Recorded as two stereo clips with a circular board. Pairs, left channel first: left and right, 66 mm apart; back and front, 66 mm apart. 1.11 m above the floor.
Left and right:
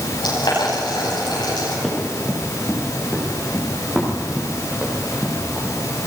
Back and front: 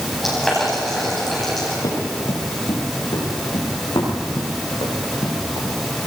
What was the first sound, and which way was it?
Boiling, 90° left.